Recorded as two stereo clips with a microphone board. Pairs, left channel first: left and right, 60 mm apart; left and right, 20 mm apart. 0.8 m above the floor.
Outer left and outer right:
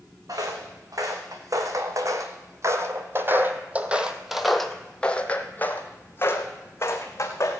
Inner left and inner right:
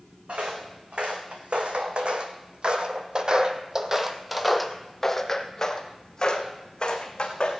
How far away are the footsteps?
About 2.5 m.